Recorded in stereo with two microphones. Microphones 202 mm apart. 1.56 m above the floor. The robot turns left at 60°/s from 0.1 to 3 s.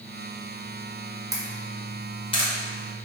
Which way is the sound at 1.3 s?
15° right (ahead or behind).